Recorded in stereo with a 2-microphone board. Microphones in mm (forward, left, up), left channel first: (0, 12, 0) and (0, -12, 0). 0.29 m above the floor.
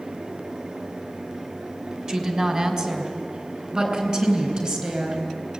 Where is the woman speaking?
30° right (ahead or behind), 2 m; by 5.2 s 40° right (ahead or behind), 4.5 m.